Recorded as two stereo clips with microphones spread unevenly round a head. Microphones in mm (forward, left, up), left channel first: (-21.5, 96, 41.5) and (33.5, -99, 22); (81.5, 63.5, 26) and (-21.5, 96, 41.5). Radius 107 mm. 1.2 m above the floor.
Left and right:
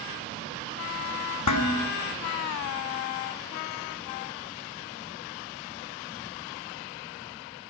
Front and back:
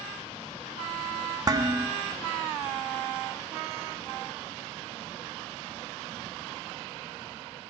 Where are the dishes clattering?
110° left, 1.6 m.